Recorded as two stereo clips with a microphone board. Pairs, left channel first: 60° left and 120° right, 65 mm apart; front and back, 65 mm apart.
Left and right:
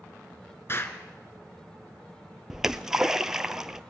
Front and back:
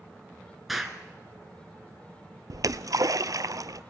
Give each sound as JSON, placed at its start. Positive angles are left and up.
{"t": 0.7, "sound": "an explosion", "azimuth_deg": 95, "distance_m": 2.0}
{"t": 2.5, "sound": "a splash", "azimuth_deg": 160, "distance_m": 0.7}